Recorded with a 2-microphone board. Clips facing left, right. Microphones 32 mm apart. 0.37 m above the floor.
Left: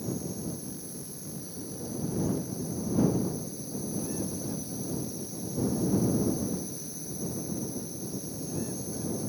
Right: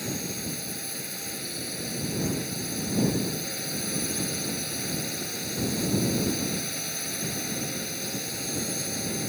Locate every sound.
0.0 s a drone: 75° right (ahead or behind)